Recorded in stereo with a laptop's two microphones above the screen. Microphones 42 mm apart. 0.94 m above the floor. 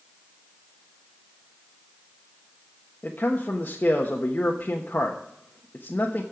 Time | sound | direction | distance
3.0 | a man speaking | 45° left (ahead or behind) | 1.2 m